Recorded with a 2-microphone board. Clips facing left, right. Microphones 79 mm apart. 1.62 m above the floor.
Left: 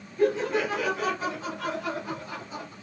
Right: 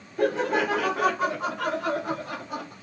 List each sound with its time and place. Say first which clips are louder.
0.2 s laughter: right 1 dB; 65° right (ahead or behind), 1.0 m; by 2.7 s 70° right (ahead or behind), 3 m